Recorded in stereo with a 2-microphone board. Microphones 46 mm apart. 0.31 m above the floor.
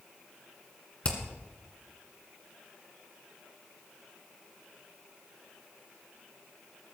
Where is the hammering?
30° left (ahead or behind), 2 m.